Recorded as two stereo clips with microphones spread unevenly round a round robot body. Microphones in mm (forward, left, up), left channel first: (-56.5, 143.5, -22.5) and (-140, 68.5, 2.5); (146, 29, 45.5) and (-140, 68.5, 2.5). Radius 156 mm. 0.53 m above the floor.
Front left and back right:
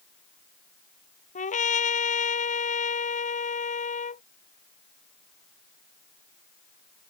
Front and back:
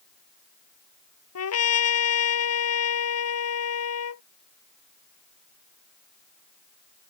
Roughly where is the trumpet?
Ahead left.